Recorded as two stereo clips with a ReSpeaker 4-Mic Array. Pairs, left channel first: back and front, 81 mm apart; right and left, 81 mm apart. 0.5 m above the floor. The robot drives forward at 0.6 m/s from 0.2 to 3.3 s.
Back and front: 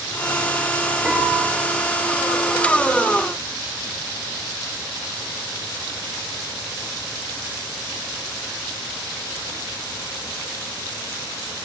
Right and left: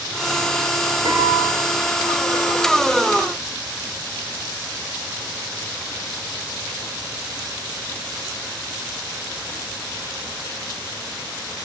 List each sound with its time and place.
1.1 s a piano: 75° left, 5.5 m; by 1.5 s 80° left, 5.5 m